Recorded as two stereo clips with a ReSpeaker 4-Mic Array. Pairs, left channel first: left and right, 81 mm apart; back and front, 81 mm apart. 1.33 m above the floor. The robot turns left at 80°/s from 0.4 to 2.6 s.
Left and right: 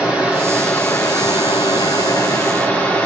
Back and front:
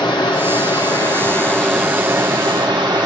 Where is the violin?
No violin in this recording.